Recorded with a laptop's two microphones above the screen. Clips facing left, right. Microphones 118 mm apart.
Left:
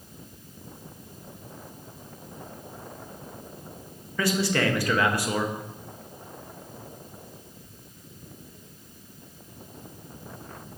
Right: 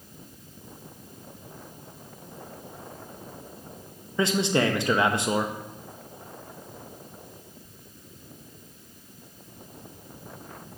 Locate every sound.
4.2 s a man speaking: 20° right (ahead or behind), 0.5 m